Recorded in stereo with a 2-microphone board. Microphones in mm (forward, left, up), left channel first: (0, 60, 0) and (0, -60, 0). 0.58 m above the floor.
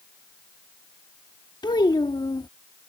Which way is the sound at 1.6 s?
35° left (ahead or behind).